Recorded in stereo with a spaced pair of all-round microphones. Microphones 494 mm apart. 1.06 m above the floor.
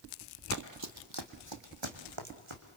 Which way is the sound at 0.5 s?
35° right (ahead or behind).